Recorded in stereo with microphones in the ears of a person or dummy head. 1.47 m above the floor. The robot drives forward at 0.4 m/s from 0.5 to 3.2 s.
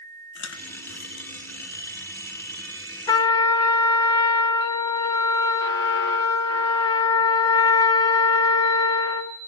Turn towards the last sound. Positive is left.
turn(degrees=20)  # may be behind; listen again after turning